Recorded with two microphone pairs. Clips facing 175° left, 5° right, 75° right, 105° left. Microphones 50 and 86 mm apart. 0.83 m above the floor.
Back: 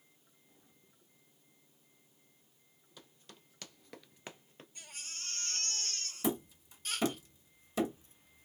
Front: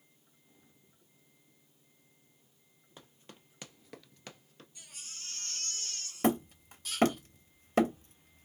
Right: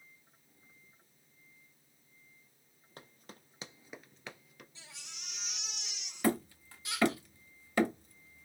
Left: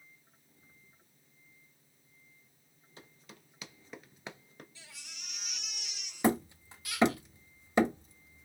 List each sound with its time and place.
3.0 s running footsteps: 50° right, 1.4 m; by 4.7 s 135° left, 1.1 m
4.8 s a baby crying: 140° right, 1.5 m
6.2 s hammering: 35° left, 0.8 m